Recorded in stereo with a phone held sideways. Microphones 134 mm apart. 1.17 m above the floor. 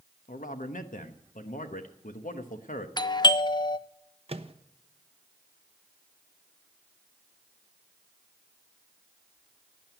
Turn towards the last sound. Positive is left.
turn(degrees=-45)  # may be behind; listen again after turning